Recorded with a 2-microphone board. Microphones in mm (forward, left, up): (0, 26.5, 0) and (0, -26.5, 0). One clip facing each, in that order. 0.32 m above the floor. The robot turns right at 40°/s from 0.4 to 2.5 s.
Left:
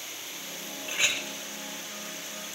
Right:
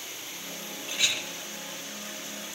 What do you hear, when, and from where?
0.9 s a clink: 25° left (ahead or behind), 0.7 m